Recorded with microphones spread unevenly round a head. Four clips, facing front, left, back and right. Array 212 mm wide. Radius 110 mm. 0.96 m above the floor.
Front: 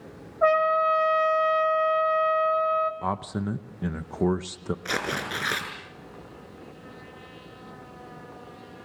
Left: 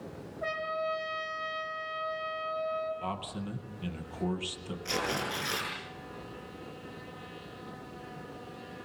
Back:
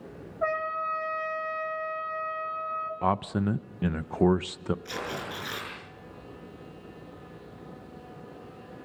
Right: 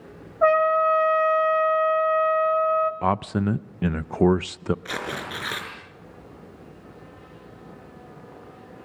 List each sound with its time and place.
0.4 s a trumpet: 55° right, 2 m
3.0 s a man speaking: 95° right, 0.6 m
4.8 s tearing paper: 20° right, 6.5 m